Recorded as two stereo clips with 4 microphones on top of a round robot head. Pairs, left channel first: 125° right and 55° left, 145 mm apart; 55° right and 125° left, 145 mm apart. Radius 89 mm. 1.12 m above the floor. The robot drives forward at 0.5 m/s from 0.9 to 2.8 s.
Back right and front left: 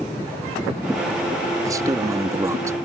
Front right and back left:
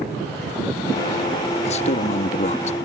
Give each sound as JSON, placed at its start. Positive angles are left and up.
{"t": 1.6, "sound": "a man speaking", "azimuth_deg": -15}